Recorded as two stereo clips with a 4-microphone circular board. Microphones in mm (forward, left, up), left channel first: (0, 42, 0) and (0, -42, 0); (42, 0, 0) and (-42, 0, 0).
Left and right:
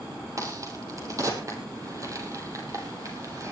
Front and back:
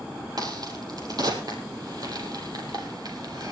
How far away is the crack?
About 4 m.